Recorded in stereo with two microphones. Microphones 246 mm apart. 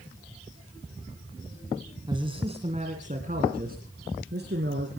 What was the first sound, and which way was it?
A man speaking, 20° right (ahead or behind).